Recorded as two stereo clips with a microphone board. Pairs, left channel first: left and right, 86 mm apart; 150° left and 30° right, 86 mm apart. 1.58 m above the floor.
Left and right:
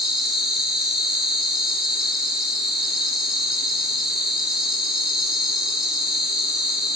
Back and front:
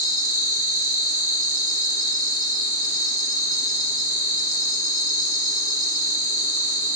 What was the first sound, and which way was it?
An insect, 175° right.